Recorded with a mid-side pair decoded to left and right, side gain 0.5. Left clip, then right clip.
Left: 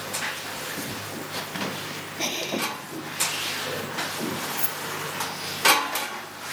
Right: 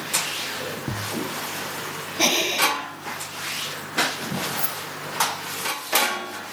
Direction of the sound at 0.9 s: 60° right.